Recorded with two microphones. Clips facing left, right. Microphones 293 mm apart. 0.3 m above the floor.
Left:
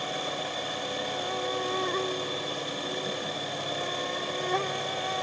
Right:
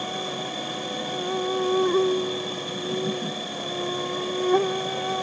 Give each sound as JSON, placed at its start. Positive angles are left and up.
{"t": 0.0, "sound": "an insect", "side_deg": -55}